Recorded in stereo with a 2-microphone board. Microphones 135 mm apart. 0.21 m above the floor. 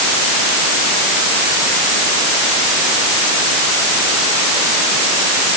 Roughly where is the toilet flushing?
I don't hear a toilet flushing.